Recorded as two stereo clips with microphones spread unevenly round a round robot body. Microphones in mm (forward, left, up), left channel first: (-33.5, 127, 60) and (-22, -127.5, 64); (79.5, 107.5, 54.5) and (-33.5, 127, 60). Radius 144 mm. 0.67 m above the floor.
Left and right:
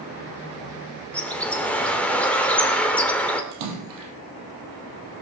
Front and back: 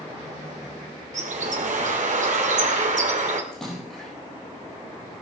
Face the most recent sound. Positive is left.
turn(degrees=-100)